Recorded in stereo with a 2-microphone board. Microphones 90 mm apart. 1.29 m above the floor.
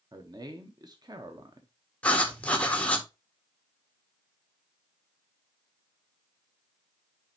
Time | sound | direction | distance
0.1 | a man speaking | 45° right (ahead or behind) | 0.9 m
2.0 | writing | 15° left (ahead or behind) | 1.2 m